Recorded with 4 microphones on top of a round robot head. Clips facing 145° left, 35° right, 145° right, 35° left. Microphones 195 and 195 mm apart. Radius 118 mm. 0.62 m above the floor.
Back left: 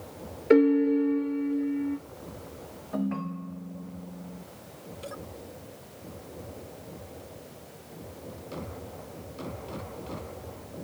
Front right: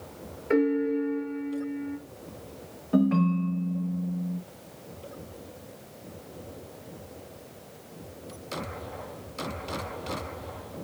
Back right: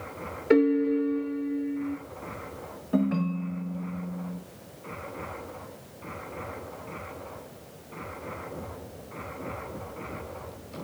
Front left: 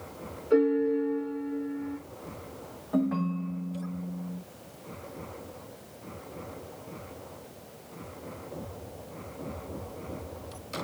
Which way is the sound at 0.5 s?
160° right.